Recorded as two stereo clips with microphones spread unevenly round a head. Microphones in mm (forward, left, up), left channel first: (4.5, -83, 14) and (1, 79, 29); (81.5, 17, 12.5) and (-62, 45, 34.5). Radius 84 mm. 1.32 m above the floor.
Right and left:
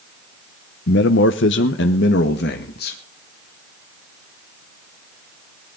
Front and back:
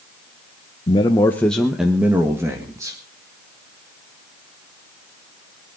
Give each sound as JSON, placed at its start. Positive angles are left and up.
{"t": 0.9, "sound": "a man speaking", "azimuth_deg": -65, "distance_m": 0.9}